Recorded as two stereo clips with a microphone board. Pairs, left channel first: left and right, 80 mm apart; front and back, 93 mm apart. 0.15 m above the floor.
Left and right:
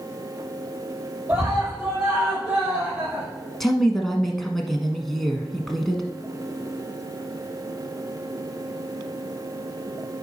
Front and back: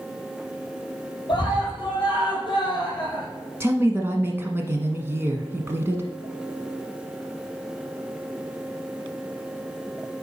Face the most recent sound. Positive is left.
turn(degrees=170)